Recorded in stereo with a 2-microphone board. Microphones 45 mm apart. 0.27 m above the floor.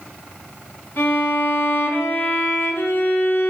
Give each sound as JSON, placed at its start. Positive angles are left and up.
{"t": 1.0, "sound": "a violin", "side_deg": 60, "distance_m": 1.4}